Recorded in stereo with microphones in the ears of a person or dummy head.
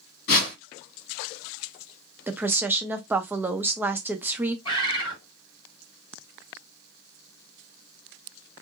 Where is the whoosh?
60° left (ahead or behind), 1.8 m.